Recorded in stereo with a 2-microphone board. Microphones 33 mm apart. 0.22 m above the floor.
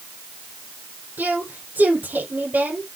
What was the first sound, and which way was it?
A woman speaking, 70° right (ahead or behind).